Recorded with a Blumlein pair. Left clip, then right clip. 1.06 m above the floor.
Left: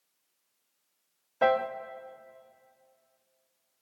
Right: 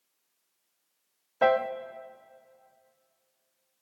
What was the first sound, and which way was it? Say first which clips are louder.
A piano: right 1 dB; 5° right.